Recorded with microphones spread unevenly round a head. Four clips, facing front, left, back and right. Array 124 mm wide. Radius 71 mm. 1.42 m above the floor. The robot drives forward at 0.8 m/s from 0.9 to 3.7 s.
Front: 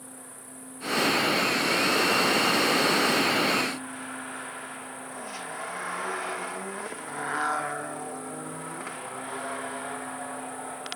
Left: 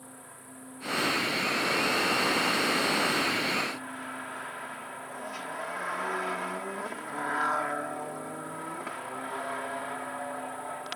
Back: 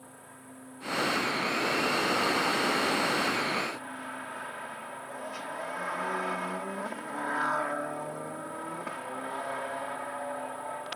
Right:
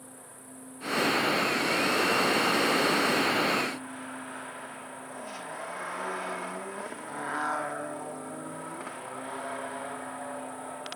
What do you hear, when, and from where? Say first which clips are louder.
0.0 s an insect: left 1 dB, front 3 dB; 55° left; by 10.9 s 75° left